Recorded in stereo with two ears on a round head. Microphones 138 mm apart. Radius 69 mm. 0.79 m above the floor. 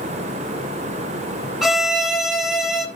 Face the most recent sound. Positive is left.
turn(degrees=0)  # may be behind; listen again after turning